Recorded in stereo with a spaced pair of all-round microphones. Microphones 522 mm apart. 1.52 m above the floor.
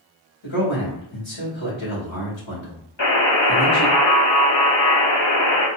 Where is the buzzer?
60° left (ahead or behind), 1.6 m.